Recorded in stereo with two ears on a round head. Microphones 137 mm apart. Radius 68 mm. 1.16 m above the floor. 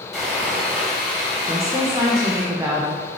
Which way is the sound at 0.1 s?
5° right (ahead or behind).